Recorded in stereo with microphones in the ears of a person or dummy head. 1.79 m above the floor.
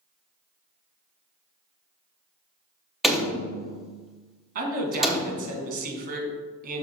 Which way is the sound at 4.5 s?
55° right (ahead or behind).